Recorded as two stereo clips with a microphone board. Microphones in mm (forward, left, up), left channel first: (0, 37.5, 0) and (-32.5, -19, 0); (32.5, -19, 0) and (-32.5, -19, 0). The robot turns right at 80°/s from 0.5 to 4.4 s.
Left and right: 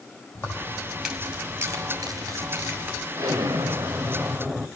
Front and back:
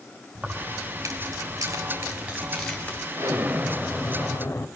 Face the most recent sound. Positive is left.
turn(degrees=-45)